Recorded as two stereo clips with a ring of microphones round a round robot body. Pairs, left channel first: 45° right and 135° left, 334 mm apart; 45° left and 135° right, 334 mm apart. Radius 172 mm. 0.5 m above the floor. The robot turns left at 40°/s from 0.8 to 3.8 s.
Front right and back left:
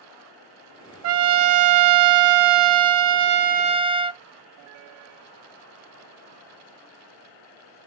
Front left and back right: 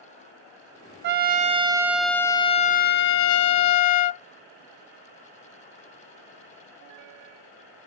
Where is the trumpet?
175° left, 0.5 m; by 4.2 s 65° left, 0.5 m.